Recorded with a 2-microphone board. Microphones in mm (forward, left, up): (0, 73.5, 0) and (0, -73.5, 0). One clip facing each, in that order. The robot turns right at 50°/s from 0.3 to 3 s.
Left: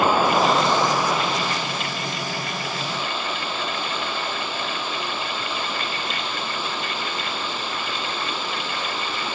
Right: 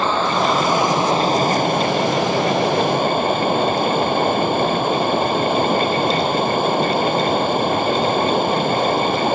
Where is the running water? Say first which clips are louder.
Even; 170° left; by 9.4 s 55° right.